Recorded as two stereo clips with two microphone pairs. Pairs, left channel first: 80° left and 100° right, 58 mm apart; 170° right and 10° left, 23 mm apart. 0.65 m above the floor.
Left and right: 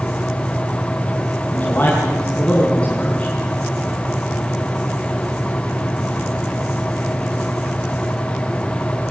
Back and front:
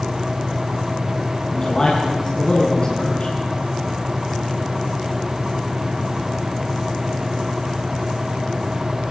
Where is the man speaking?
135° left, 6 m; by 3.3 s 155° left, 6.5 m.